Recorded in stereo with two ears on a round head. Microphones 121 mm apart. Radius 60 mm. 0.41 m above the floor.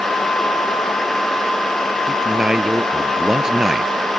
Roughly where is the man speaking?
Centre.